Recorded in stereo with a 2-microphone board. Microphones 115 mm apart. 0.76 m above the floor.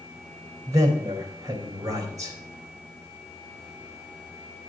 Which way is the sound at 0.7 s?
30° right (ahead or behind).